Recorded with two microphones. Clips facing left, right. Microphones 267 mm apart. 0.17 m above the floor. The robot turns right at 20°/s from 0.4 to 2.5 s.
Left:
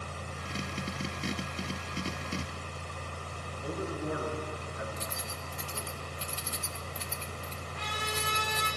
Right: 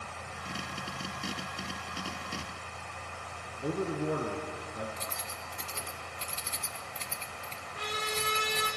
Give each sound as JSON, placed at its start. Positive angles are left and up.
{"t": 3.6, "sound": "a man speaking", "side_deg": -45, "distance_m": 2.5}
{"t": 5.0, "sound": "keys jangling", "side_deg": 10, "distance_m": 0.8}
{"t": 7.7, "sound": "a trumpet", "side_deg": -40, "distance_m": 7.0}